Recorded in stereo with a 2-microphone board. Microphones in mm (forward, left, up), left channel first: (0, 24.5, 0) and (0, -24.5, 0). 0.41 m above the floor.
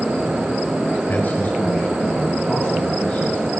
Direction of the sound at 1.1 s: 40° left (ahead or behind).